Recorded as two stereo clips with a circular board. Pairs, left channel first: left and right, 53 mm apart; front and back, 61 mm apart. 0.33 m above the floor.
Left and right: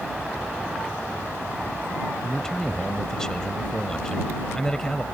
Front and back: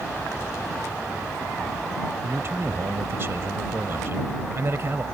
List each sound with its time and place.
2.2 s a man speaking: 165° left